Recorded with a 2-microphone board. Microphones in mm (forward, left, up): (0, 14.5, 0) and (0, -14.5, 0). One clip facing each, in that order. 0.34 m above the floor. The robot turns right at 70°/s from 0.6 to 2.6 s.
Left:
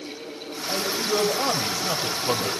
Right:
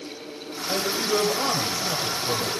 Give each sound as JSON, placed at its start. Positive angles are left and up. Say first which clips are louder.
{"t": 0.7, "sound": "a man speaking", "louder": "right 1 dB", "azimuth_deg": -20, "distance_m": 1.7}